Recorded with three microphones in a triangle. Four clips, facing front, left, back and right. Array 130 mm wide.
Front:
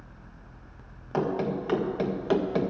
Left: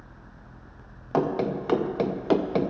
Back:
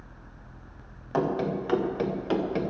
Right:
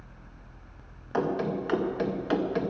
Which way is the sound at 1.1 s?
95° left.